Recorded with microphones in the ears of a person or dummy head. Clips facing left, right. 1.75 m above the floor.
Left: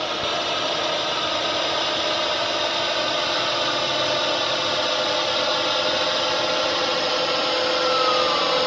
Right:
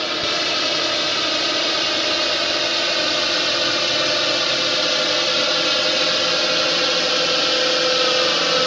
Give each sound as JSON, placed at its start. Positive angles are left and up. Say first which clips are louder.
{"t": 0.0, "sound": "a drone", "louder": "right 1 dB", "side_deg": -25}